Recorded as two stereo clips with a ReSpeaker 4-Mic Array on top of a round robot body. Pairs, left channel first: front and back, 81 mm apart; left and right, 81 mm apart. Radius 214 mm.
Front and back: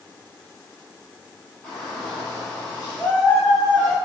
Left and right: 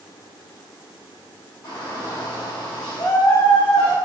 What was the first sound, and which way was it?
A shout, 60° left.